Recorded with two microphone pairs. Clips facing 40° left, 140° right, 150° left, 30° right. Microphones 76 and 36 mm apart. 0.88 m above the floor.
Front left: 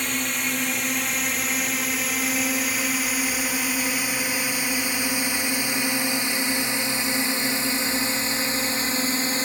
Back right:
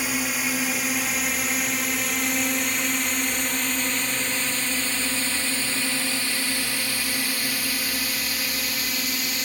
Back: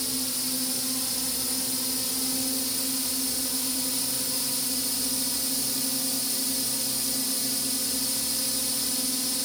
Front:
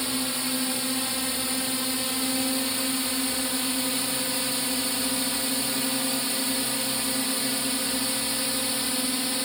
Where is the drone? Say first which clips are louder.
Back right 1 dB, front 4 dB; 60° right; by 9.4 s straight ahead.